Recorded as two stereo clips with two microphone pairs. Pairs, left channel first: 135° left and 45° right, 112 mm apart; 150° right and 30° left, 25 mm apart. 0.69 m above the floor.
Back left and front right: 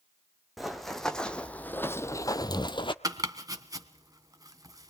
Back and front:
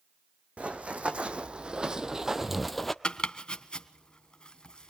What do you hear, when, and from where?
0.6 s running footsteps: 45° left, 1.8 m; by 2.9 s 125° left, 1.0 m
3.0 s chopping: 105° right, 1.6 m